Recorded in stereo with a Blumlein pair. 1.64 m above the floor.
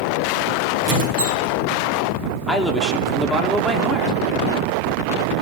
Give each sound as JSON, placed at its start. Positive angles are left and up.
{"t": 0.8, "sound": "a squeak", "azimuth_deg": -50, "distance_m": 5.5}
{"t": 2.5, "sound": "a man speaking", "azimuth_deg": 0, "distance_m": 2.5}